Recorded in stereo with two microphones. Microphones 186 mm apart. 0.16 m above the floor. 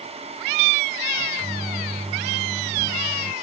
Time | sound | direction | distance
1.2 | a microwave | 5° left (ahead or behind) | ?